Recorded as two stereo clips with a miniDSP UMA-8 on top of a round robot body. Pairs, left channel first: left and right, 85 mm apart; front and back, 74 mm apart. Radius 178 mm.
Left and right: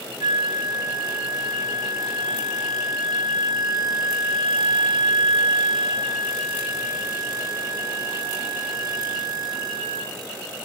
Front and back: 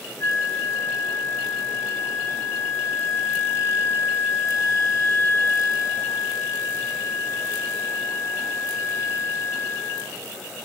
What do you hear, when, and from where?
0.2 s a flute: 55° right, 1.8 m